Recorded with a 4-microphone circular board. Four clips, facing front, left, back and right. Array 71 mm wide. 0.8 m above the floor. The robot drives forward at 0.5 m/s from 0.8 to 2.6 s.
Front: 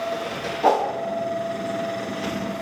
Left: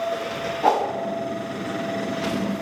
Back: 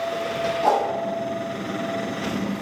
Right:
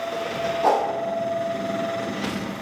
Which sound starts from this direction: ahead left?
A whoosh, at 0.6 s.